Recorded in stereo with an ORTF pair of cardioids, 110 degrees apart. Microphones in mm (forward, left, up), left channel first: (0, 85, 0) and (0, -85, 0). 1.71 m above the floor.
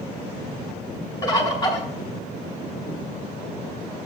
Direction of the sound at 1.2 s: 20° left.